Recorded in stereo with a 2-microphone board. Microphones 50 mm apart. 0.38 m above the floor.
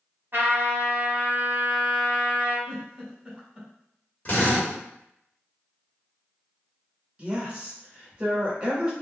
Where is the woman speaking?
25° right (ahead or behind), 1.0 m.